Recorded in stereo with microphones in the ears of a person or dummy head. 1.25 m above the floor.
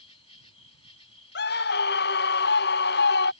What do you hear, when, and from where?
0.0 s an insect: 25° left (ahead or behind)
1.4 s a scream: 45° left (ahead or behind)